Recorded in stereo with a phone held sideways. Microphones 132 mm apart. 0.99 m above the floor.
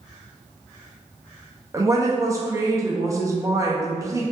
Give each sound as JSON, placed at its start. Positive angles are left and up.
{"t": 1.7, "sound": "a woman speaking", "side_deg": -20, "distance_m": 0.5}